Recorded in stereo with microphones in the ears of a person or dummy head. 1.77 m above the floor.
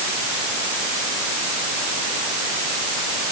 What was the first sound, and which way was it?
Only background noise.